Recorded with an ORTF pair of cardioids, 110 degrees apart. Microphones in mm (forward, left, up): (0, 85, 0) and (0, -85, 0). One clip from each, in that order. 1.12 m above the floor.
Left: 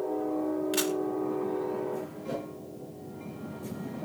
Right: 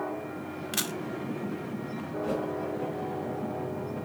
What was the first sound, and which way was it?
A camera shutter, 20° right.